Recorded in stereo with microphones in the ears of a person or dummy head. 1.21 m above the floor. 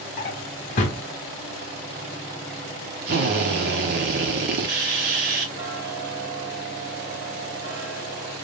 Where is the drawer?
45° left (ahead or behind), 0.8 m.